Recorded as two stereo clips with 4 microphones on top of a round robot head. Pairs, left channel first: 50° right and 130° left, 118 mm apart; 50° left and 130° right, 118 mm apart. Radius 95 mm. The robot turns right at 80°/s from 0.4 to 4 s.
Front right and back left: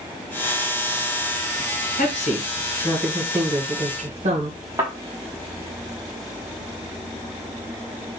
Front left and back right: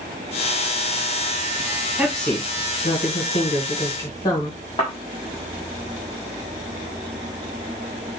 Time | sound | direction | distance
2.0 | a woman speaking | 55° right | 1.5 m
4.8 | a thud | 85° left | 1.2 m